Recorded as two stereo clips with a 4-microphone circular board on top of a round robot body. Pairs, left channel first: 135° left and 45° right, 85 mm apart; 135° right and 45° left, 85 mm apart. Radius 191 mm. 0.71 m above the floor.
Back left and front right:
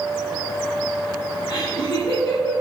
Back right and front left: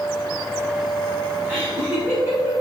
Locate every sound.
1.5 s laughter: 125° left, 4 m